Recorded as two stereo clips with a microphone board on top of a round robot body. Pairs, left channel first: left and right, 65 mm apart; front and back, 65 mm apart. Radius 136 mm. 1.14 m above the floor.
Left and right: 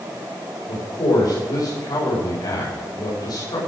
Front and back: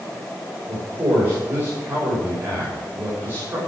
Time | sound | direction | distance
0.7 | a man speaking | 115° left | 6.5 m